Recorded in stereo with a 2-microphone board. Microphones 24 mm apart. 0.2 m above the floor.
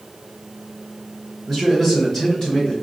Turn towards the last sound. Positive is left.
turn(degrees=30)  # may be behind; listen again after turning